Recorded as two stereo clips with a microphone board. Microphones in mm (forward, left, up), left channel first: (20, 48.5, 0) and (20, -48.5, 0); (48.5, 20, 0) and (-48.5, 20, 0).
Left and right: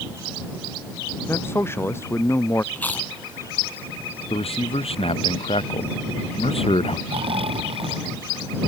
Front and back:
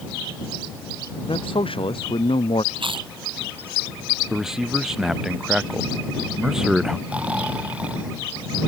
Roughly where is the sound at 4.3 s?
Left.